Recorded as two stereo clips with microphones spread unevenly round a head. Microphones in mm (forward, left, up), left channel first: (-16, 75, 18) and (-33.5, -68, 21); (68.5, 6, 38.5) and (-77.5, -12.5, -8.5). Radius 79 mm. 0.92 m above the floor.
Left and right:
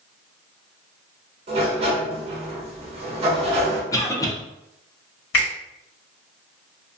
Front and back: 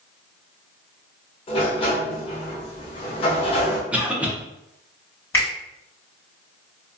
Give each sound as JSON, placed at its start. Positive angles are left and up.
{"t": 1.5, "sound": "a sliding door", "azimuth_deg": -55, "distance_m": 0.7}
{"t": 3.9, "sound": "a cough", "azimuth_deg": 135, "distance_m": 0.7}
{"t": 5.3, "sound": "a finger snap", "azimuth_deg": 85, "distance_m": 1.4}